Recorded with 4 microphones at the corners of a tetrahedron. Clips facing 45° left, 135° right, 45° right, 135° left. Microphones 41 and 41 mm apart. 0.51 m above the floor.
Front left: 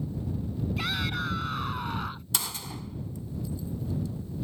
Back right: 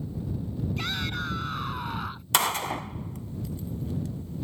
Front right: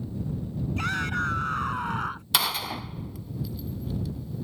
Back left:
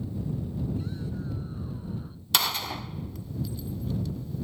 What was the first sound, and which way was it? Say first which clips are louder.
A shout: front left 2 dB, front right 8 dB; 40° right.